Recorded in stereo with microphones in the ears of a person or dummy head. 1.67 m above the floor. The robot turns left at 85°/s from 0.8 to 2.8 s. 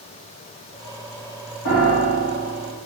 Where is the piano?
115° left, 1.5 m; by 2.7 s 25° left, 1.5 m.